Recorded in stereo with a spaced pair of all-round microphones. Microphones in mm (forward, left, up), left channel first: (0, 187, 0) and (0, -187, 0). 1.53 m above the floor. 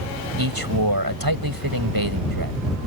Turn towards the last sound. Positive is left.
turn(degrees=-85)